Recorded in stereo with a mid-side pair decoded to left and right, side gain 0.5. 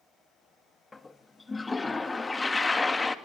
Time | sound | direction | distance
0.9 | a toilet flushing | 20° left | 2 m